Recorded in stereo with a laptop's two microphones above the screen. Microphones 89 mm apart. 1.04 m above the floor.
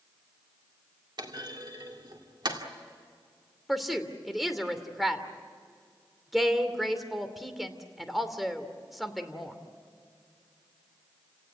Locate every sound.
1.2 s a clunk: 60° right (ahead or behind), 2 m
3.7 s a woman speaking: centre (ahead or behind), 2.5 m